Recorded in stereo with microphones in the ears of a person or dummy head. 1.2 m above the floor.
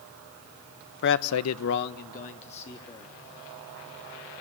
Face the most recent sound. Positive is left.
turn(degrees=30)  # may be behind; listen again after turning